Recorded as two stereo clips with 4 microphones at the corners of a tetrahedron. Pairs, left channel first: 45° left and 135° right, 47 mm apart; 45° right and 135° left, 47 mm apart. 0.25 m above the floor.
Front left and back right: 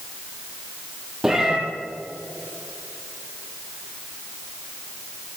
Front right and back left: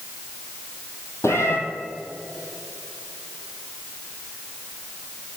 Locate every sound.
1.2 s a cat meowing: 55° right, 3 m